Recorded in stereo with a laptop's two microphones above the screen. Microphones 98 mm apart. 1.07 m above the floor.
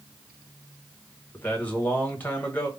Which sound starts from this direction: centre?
A man speaking, at 1.3 s.